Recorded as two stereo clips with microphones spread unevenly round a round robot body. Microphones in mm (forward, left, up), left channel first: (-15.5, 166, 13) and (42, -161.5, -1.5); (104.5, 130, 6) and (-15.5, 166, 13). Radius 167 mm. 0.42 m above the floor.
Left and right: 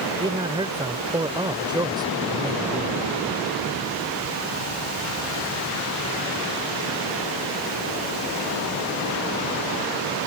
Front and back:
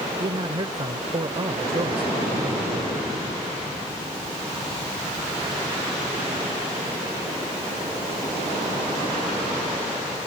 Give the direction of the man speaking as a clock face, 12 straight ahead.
5 o'clock.